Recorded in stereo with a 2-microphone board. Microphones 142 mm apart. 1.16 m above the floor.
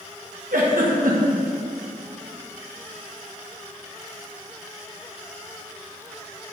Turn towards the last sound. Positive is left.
turn(degrees=-75)  # may be behind; listen again after turning